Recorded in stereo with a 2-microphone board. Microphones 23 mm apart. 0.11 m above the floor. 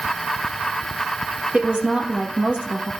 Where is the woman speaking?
55° right (ahead or behind), 2.5 m.